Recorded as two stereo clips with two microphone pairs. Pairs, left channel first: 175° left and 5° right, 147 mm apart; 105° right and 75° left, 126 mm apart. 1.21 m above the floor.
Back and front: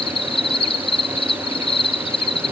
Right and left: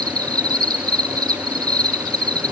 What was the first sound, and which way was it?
An insect, 130° left.